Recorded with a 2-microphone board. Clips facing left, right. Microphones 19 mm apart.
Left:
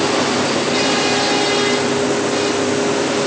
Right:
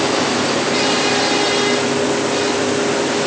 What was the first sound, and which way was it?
Only background noise.